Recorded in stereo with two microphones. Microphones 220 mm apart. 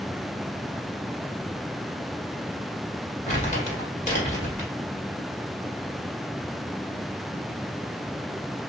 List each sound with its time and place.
3.3 s crumpling: 35° left (ahead or behind), 1.4 m